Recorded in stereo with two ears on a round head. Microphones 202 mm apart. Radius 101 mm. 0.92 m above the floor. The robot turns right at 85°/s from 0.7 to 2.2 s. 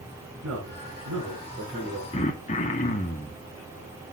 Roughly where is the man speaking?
Behind right.